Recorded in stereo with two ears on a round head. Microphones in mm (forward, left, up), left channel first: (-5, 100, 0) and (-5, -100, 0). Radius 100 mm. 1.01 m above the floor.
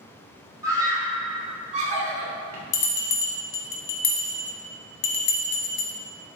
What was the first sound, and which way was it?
A scream, 15° right (ahead or behind).